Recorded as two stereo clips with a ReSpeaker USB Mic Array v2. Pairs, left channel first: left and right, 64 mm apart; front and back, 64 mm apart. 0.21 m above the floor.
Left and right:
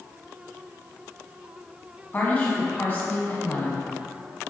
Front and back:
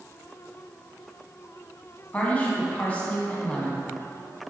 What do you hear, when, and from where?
2.1 s a woman speaking: 50° left, 1.3 m